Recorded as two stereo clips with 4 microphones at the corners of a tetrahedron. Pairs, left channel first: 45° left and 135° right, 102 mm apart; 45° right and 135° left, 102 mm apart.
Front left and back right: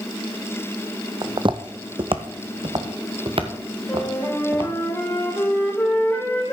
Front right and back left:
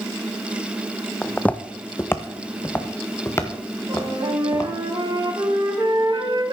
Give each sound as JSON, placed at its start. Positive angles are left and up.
{"t": 1.2, "sound": "footsteps", "azimuth_deg": -125, "distance_m": 0.6}
{"t": 3.9, "sound": "a flute", "azimuth_deg": 110, "distance_m": 2.5}